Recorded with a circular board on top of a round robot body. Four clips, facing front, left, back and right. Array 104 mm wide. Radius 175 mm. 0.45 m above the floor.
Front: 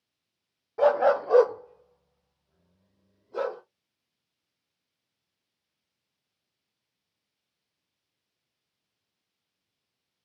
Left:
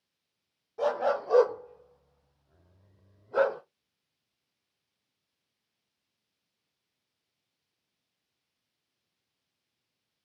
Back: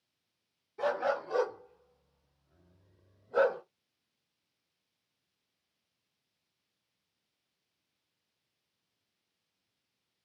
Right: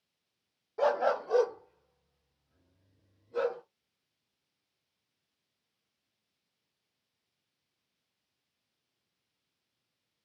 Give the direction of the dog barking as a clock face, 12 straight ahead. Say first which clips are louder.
Even, front 10 dB; 1 o'clock.